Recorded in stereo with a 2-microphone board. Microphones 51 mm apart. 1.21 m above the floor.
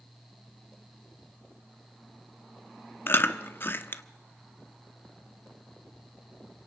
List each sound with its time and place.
3.1 s chewing: 45° left (ahead or behind), 1.0 m